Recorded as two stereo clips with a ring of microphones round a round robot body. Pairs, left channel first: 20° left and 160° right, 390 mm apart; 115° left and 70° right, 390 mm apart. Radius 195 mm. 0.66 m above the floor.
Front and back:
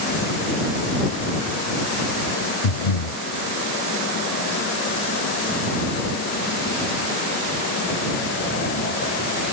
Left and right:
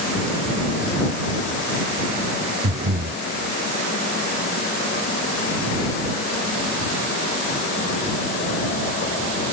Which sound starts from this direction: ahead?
Breathing, at 2.6 s.